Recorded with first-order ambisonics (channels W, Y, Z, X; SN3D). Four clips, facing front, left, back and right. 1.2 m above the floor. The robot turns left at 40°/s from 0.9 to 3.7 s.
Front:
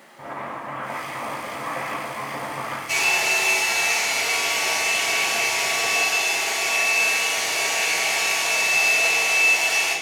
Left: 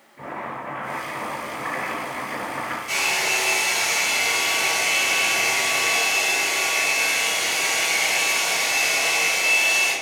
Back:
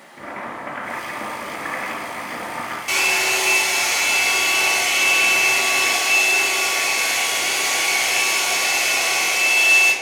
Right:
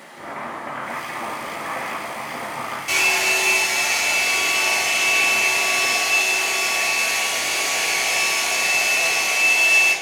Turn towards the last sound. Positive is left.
turn(degrees=175)